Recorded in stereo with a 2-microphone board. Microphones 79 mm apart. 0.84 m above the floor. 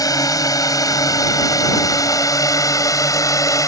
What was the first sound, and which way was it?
A drone, 50° left (ahead or behind).